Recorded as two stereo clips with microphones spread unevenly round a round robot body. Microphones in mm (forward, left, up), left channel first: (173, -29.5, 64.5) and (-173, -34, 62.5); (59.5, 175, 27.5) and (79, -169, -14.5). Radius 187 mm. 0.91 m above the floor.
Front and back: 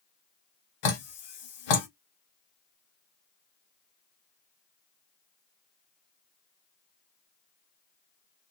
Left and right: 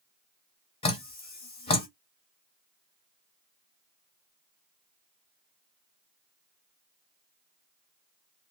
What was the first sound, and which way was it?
Dripping, 20° left.